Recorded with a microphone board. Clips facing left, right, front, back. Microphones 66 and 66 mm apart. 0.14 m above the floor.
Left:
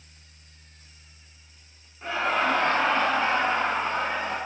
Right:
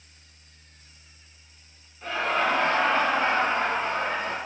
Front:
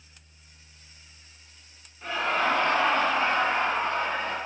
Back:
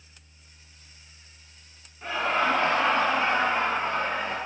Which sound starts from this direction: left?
Laughter, at 2.0 s.